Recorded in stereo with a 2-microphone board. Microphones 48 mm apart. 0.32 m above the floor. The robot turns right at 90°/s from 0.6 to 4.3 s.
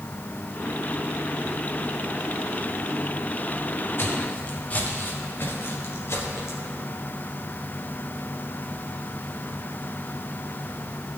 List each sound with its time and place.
4.0 s footsteps: 50° left (ahead or behind), 3.5 m; by 6.6 s 65° left (ahead or behind), 3 m